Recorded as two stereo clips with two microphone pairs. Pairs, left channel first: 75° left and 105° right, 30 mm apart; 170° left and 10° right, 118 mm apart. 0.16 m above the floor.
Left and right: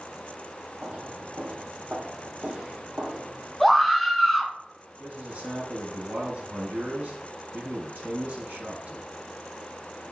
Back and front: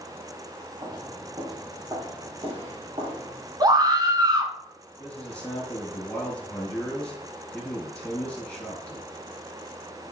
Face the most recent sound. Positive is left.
turn(degrees=-105)